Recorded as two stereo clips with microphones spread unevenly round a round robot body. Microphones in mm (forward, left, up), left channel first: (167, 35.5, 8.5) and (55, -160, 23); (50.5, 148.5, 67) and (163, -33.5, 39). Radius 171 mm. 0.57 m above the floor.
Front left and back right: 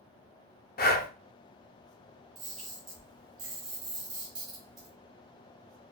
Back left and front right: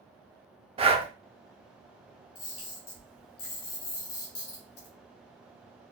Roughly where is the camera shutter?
Behind left.